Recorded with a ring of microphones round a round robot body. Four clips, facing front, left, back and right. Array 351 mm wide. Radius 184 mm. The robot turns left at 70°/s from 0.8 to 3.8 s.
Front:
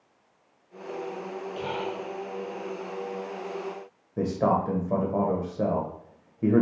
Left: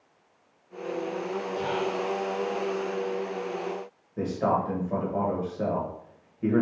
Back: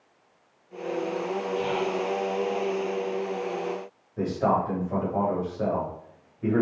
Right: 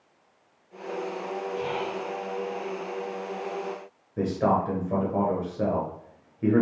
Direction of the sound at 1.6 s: 60° left.